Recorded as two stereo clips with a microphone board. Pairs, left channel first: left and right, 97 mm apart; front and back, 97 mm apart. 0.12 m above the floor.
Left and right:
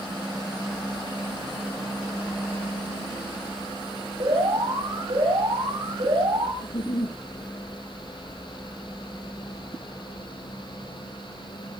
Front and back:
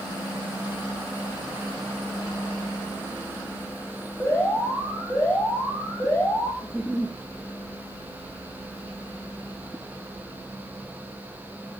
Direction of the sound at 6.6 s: 90° left.